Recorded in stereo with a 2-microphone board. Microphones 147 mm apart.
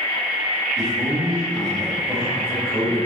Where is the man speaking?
Centre (ahead or behind), 3.5 m.